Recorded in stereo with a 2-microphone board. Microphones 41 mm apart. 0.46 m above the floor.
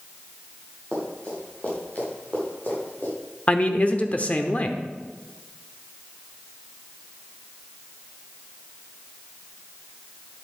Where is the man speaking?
35° left (ahead or behind), 0.9 m.